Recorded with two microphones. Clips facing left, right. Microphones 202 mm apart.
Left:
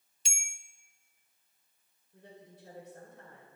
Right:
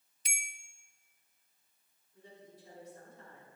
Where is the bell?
30° left (ahead or behind), 0.5 m.